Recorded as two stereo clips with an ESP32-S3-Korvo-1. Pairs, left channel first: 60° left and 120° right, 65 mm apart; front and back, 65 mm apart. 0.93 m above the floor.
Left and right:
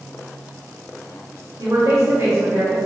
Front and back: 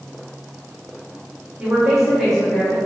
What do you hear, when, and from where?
1.6 s a woman speaking: 105° right, 2 m; by 2.8 s 70° right, 1.6 m